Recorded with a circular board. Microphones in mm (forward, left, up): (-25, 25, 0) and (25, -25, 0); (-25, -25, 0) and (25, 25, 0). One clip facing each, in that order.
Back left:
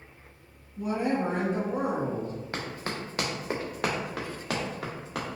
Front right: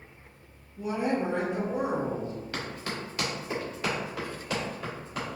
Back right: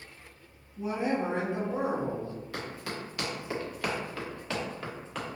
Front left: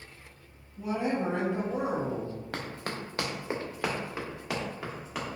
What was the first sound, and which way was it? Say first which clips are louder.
A woman speaking: back left 1 dB, even; 155° left.